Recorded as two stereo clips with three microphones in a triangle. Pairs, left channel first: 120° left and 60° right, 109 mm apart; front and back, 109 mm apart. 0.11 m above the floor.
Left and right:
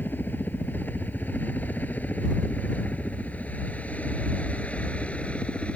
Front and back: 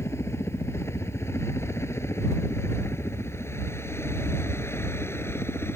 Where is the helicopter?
55° left; by 5.8 s 50° left.